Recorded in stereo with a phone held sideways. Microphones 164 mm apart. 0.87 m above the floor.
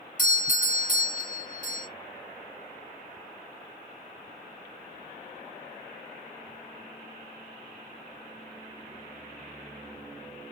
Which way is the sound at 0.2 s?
50° left (ahead or behind).